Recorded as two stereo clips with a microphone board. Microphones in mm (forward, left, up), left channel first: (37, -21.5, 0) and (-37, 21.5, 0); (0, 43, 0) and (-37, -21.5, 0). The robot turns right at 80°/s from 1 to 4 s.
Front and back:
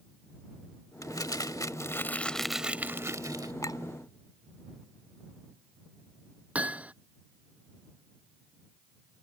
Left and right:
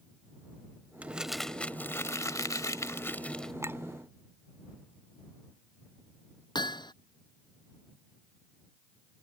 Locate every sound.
1.0 s crumpling: 60° right; by 3.5 s 145° left
3.6 s a clink: 75° right; by 3.8 s 60° right
6.5 s hammering: 75° left